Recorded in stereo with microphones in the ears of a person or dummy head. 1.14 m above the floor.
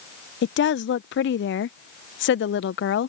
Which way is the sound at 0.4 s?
55° left (ahead or behind).